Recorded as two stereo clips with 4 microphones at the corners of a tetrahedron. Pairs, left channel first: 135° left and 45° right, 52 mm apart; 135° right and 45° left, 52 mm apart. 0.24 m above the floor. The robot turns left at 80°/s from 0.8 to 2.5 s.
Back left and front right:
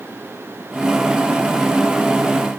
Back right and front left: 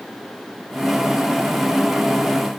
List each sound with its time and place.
Only background noise.